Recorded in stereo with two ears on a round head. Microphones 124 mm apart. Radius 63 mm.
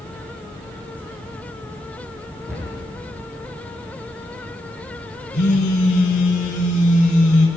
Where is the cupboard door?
20° right (ahead or behind), 9.5 m.